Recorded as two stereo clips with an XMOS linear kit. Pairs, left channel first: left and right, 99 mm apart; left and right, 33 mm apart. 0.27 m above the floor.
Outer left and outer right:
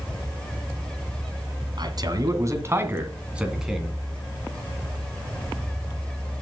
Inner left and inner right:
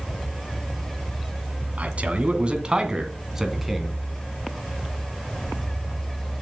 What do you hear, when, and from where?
1.8 s a man speaking: 50° right (ahead or behind), 2 m; by 4.0 s centre (ahead or behind), 2.5 m